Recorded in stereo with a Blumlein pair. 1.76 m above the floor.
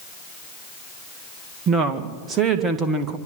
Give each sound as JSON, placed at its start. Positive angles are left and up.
{"t": 1.7, "sound": "a woman speaking", "azimuth_deg": -20, "distance_m": 2.5}